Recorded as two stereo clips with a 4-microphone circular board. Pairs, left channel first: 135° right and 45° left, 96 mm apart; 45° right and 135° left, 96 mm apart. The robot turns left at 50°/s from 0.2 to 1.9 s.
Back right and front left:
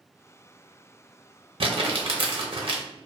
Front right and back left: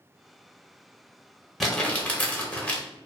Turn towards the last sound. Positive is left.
turn(degrees=30)